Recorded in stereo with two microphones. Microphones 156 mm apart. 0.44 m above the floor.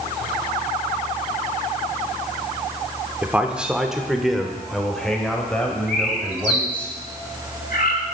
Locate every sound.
3.2 s a man speaking: 10° right (ahead or behind), 1.0 m; by 6.9 s 10° left (ahead or behind), 2.5 m
5.9 s a bird: 70° left (ahead or behind), 1.7 m